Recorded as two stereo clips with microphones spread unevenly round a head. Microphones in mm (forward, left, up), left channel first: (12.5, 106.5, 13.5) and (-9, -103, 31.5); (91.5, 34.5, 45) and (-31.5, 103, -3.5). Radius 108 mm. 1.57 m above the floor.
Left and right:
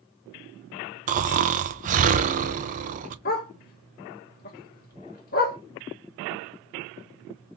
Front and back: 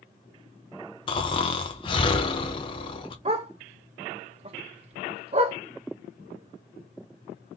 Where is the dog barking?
105° left, 1.2 m.